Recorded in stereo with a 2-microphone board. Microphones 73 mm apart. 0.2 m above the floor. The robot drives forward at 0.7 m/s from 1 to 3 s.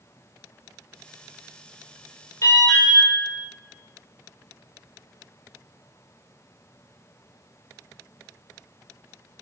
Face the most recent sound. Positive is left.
turn(degrees=40)  # may be behind; listen again after turning